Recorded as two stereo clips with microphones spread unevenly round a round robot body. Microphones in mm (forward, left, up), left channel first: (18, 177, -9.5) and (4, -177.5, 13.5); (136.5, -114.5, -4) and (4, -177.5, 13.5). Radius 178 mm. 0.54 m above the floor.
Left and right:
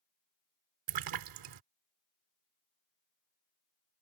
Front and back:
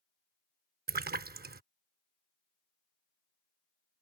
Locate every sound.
0.9 s a splash: 130° right